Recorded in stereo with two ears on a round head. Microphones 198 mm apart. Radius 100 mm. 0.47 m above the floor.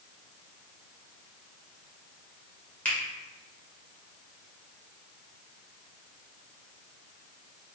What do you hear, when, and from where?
2.9 s a finger snap: 5° left (ahead or behind), 1.5 m